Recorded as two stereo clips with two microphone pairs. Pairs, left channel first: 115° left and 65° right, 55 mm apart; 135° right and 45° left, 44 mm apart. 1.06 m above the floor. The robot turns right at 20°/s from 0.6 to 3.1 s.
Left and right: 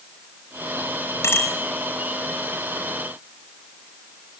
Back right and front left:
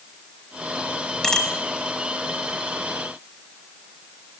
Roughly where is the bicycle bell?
Behind left.